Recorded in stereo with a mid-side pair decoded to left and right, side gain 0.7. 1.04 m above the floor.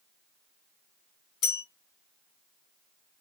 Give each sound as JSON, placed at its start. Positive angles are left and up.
{"t": 1.4, "sound": "a bell", "azimuth_deg": 60, "distance_m": 2.5}